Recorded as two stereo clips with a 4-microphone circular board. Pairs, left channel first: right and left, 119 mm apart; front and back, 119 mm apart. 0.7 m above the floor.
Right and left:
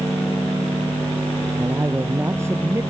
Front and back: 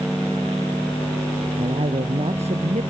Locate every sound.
1.6 s a man speaking: 155° left